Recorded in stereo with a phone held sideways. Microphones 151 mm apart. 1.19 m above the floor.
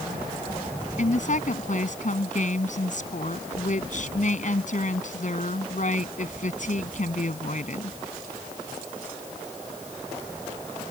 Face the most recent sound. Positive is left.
turn(degrees=55)  # may be behind; listen again after turning